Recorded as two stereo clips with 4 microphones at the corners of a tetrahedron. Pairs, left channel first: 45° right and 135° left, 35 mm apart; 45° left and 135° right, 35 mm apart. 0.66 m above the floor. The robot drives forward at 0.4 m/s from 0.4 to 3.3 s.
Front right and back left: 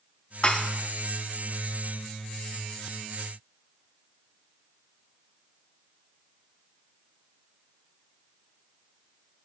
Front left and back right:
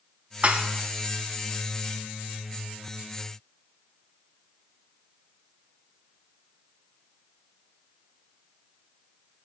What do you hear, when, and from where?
0.4 s dishes clattering: 100° right, 0.7 m; by 0.7 s 105° right, 0.7 m